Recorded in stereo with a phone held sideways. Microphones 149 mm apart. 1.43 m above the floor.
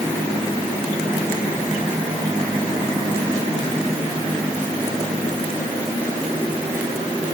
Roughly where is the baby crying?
No baby crying in this recording.